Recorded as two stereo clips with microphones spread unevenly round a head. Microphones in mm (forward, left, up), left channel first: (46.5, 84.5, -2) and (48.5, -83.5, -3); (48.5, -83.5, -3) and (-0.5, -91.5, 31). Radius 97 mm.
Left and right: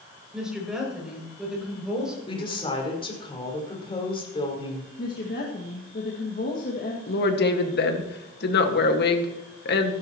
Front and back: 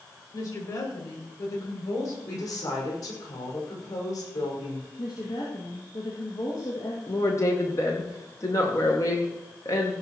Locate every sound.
0.3 s a woman speaking: 5° right, 6.5 m
2.3 s a woman speaking: 30° left, 5.5 m
5.0 s a woman speaking: 55° left, 2 m
7.1 s a woman speaking: 70° left, 1.9 m